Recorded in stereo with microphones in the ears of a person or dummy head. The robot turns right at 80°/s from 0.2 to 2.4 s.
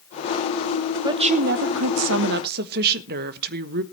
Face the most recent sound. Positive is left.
turn(degrees=-55)